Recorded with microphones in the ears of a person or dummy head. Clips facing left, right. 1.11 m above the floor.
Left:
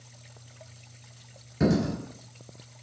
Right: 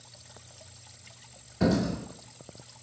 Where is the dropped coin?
55° left (ahead or behind), 1.8 m.